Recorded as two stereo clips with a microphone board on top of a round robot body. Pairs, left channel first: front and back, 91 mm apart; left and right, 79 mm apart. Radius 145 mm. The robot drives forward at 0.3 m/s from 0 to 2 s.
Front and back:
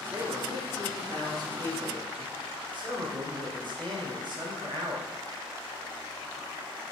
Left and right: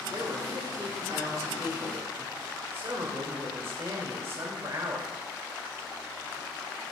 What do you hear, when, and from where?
0.1 s a man speaking: 135° right, 1.6 m; by 5.1 s 145° right, 2 m